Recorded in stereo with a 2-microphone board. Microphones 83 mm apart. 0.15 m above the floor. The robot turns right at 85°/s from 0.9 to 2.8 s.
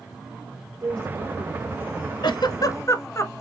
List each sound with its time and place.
0.8 s a woman speaking: 130° right, 2.5 m; by 2.1 s 25° right, 2.5 m
2.2 s a giggle: 60° left (ahead or behind), 0.5 m; by 3.4 s 35° left (ahead or behind), 0.5 m